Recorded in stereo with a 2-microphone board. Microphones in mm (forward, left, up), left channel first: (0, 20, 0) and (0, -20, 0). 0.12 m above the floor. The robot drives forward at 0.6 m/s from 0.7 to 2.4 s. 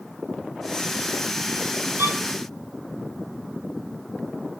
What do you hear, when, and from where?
2.0 s a violin: 75° right (ahead or behind), 0.9 m